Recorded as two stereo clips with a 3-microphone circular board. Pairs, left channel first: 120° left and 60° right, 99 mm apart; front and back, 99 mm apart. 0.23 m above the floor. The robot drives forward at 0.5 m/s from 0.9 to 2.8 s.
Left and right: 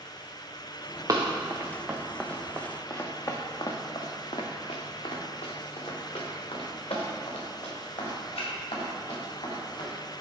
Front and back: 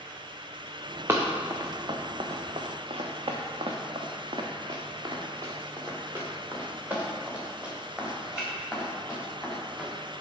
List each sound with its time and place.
1.1 s running footsteps: 115° right, 1.1 m; by 9.9 s 95° left, 3.5 m